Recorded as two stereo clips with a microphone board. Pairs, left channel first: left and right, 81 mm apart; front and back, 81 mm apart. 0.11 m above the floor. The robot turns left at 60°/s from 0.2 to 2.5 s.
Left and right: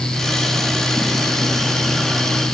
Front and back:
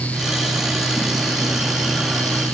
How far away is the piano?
No piano in this recording.